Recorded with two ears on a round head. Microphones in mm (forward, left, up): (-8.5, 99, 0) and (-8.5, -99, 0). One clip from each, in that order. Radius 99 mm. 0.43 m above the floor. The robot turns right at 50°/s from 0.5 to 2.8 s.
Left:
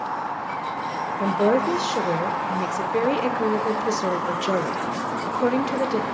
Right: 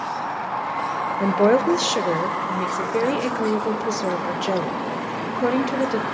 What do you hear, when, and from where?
1.2 s a woman speaking: 80° right, 1.2 m; by 6.0 s straight ahead, 1.2 m